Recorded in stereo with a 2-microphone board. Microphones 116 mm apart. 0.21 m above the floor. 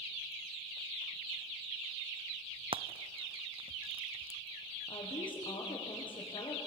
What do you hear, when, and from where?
2.7 s frying: 50° right (ahead or behind), 0.6 m
4.9 s a woman speaking: 45° left (ahead or behind), 9 m